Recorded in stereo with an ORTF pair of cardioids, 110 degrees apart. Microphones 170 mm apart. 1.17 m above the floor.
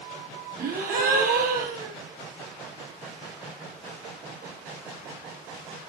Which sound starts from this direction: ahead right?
A gasp, at 0.6 s.